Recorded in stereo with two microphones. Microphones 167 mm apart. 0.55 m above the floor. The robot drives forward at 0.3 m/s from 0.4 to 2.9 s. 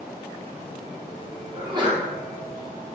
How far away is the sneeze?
About 0.9 m.